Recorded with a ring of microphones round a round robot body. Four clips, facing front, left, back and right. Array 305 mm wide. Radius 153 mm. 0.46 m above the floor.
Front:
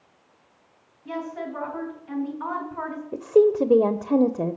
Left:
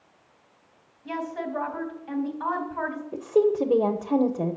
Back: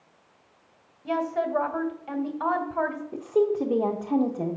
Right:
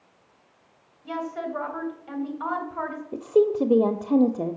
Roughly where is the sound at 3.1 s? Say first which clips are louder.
Right 1 dB, front 7 dB; ahead.